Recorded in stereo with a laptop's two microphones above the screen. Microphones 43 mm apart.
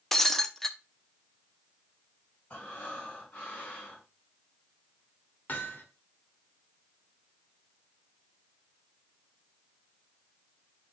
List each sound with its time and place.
0.1 s breaking glass: 10° left (ahead or behind), 0.8 m
2.5 s breathing: 35° left (ahead or behind), 4 m
5.5 s hammering: 45° left (ahead or behind), 1.8 m